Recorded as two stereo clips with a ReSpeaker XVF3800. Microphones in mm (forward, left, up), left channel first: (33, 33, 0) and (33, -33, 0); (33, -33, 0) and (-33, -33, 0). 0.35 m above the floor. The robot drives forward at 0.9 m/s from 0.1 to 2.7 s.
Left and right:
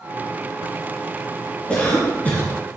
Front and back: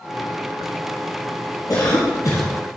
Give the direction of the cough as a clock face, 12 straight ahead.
11 o'clock.